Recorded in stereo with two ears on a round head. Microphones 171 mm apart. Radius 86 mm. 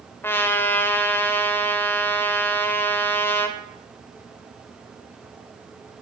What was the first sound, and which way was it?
A trumpet, 10° left (ahead or behind).